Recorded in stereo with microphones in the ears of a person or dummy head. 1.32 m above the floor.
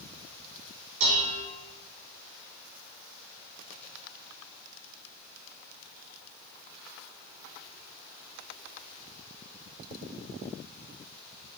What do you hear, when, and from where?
1.0 s dishes clattering: 80° right, 3 m